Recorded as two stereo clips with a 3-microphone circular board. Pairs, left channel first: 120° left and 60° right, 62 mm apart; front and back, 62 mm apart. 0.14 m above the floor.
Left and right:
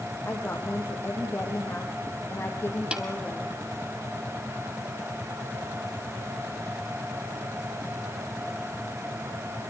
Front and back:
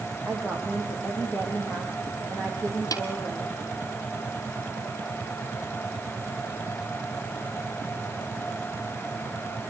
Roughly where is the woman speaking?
Ahead left.